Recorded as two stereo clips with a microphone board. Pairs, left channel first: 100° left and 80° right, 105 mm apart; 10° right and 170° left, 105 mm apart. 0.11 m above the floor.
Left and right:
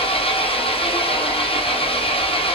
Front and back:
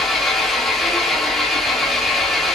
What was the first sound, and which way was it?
An engine running, 80° left.